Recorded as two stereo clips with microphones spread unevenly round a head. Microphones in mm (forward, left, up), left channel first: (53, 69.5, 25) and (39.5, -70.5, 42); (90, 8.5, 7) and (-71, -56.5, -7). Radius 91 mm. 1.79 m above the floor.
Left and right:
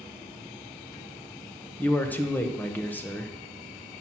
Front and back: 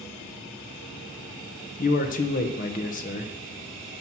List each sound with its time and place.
1.8 s a man speaking: 5° left, 0.9 m